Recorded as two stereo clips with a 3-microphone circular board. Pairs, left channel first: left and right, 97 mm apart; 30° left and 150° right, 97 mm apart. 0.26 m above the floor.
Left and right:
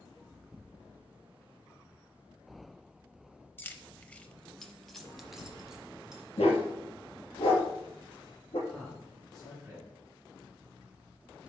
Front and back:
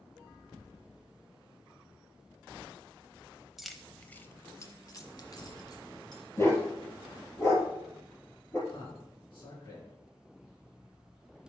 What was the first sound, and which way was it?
Keys jangling, 125° left.